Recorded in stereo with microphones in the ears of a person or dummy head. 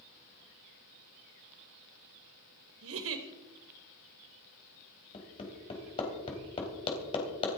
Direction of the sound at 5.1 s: 30° left (ahead or behind).